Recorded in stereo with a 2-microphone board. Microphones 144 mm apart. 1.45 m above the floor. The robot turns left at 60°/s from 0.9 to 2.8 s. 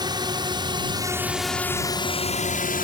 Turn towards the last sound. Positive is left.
turn(degrees=70)  # may be behind; listen again after turning